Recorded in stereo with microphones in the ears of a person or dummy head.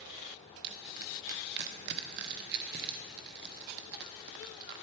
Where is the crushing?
55° right (ahead or behind), 0.8 m.